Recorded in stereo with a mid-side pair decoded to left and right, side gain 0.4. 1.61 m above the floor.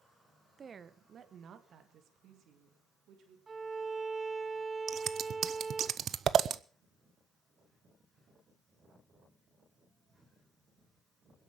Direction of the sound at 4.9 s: 60° right.